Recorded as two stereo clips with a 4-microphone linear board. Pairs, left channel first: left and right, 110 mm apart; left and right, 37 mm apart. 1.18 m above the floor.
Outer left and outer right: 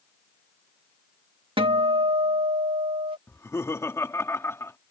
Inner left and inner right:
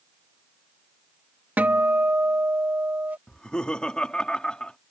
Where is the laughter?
25° left (ahead or behind).